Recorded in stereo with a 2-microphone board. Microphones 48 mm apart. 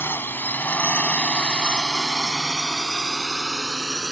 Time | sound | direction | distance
0.0 | a drone | 50° left (ahead or behind) | ?